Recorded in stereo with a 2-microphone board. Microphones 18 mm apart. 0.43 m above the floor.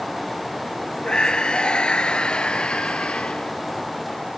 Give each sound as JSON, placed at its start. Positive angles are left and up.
{"t": 1.1, "sound": "a scream", "side_deg": 55}